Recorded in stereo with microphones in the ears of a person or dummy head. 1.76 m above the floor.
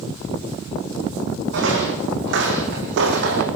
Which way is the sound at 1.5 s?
70° right (ahead or behind).